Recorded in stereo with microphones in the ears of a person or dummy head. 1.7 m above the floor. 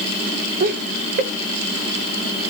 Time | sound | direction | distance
0.6 | laughter | 30° right (ahead or behind) | 0.7 m